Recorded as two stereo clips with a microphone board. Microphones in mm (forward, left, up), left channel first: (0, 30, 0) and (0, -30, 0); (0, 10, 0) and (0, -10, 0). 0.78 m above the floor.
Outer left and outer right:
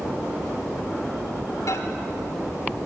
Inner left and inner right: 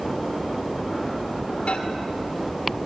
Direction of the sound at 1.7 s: 65° left (ahead or behind).